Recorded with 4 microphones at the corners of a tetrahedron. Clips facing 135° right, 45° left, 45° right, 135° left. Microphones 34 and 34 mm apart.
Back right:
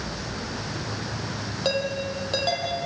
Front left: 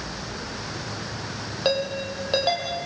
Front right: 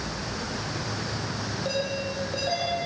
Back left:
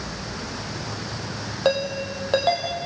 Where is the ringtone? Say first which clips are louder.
Front left 2 dB, back left 8 dB; 115° left, 5 m.